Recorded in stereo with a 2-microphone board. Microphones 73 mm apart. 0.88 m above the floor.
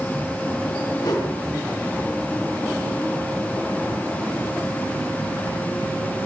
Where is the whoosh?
65° left (ahead or behind), 6 m.